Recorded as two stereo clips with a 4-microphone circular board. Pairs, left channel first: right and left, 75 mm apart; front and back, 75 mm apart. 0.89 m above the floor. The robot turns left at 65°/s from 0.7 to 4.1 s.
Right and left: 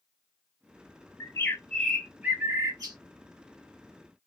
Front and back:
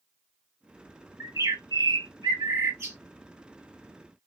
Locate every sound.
1.2 s a bird: 130° right, 0.9 m; by 3.0 s 115° left, 0.9 m